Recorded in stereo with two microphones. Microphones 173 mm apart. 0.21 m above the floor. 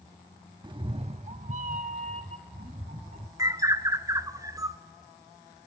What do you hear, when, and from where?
0.6 s a cat meowing: 25° right (ahead or behind), 0.5 m; by 3.3 s 40° right (ahead or behind), 1.4 m
3.4 s a bird: 20° right (ahead or behind), 0.6 m